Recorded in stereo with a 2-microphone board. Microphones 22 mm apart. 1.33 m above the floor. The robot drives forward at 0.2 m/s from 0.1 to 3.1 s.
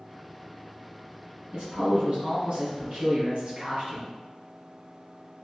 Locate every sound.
1.5 s a man speaking: 65° right (ahead or behind), 2.0 m; by 4.1 s 70° right (ahead or behind), 1.8 m